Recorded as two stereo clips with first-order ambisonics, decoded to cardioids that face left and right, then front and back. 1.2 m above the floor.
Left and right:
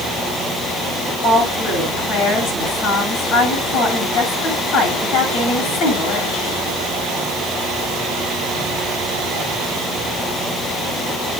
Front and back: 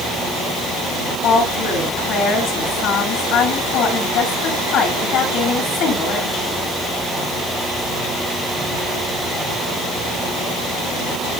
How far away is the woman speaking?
About 9.5 m.